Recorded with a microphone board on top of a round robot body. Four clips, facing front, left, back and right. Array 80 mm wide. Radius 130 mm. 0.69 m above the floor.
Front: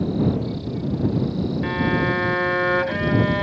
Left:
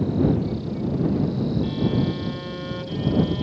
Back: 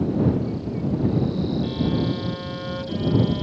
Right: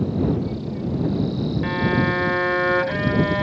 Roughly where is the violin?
Ahead right.